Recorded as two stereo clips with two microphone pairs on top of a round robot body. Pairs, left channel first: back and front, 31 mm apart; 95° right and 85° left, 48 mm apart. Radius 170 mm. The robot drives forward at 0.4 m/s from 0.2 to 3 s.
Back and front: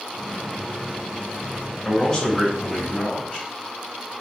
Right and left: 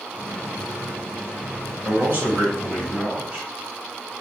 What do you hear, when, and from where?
1.9 s a man speaking: 115° left, 1.4 m; by 3.5 s 135° left, 1.6 m